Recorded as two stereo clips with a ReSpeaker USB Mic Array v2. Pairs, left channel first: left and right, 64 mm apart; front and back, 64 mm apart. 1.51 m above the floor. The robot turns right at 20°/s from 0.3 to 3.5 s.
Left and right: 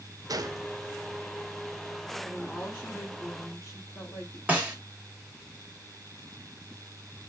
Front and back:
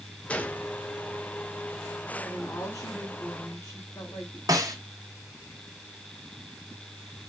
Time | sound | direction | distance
0.3 | a gunshot | 70° right | 0.6 m
2.2 | a woman speaking | 25° left | 4 m
4.5 | a snare drum | 155° right | 1.7 m